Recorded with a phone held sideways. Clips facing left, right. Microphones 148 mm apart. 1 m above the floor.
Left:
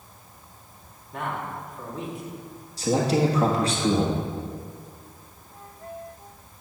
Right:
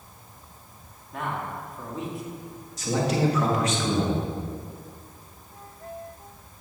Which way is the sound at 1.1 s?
Centre (ahead or behind).